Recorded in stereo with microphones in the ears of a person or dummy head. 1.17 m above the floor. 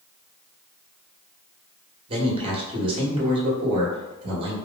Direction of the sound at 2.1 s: 30° right (ahead or behind).